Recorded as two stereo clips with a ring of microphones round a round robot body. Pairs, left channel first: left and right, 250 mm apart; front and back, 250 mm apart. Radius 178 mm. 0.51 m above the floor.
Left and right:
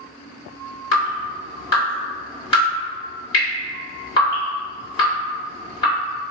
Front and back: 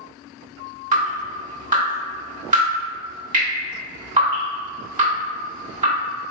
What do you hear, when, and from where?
0.9 s dripping: 145° left, 1.5 m